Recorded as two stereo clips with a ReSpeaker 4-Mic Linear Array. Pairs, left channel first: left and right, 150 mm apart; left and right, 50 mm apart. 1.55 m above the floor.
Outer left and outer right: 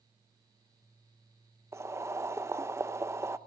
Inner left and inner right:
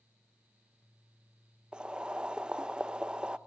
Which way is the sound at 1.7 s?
20° right (ahead or behind).